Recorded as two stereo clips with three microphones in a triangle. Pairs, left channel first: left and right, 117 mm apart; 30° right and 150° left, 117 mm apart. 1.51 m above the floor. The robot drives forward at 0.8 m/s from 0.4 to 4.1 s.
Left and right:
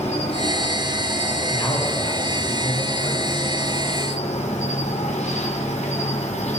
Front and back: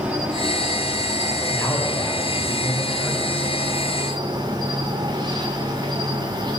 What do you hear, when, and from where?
0.0 s an insect: 70° left, 6 m; by 6.6 s 100° left, 5.5 m
1.5 s a man speaking: 35° left, 7.5 m; by 3.5 s 45° left, 6.5 m